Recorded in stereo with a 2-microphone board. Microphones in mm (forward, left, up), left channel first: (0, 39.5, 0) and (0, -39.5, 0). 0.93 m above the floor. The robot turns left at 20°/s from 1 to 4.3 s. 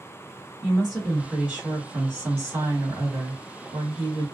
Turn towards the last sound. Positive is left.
turn(degrees=-75)